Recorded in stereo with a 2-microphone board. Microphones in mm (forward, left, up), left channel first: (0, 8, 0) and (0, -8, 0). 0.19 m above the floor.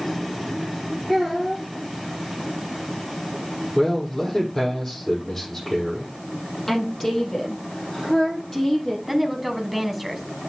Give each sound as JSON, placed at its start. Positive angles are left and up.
{"t": 1.1, "sound": "a child speaking", "side_deg": 10, "distance_m": 7.0}
{"t": 3.8, "sound": "a man speaking", "side_deg": 20, "distance_m": 7.0}
{"t": 6.7, "sound": "a woman speaking", "side_deg": 20, "distance_m": 5.0}
{"t": 9.1, "sound": "a woman speaking", "side_deg": -5, "distance_m": 1.3}